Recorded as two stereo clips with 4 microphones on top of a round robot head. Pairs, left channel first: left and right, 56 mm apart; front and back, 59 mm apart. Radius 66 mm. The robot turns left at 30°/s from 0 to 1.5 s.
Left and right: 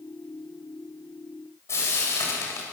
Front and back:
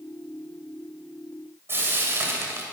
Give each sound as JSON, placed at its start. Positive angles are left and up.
{"t": 1.7, "sound": "frying", "azimuth_deg": 130, "distance_m": 8.5}